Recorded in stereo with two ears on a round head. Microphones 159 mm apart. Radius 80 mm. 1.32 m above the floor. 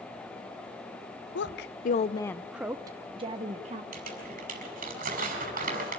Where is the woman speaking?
75° left (ahead or behind), 0.7 m; by 3.8 s 40° right (ahead or behind), 1.3 m.